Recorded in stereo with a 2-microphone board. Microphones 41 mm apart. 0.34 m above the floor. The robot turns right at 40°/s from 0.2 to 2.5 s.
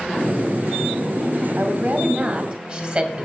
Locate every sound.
1.6 s a woman speaking: 75° right, 2.0 m; by 3.3 s 40° right, 2.0 m